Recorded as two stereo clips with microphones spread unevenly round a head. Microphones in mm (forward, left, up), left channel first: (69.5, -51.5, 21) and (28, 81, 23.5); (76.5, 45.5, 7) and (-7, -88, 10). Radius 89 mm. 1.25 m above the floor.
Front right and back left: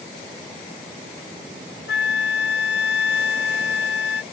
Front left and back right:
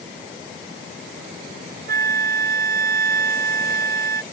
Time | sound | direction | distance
1.9 | a flute | 95° right | ?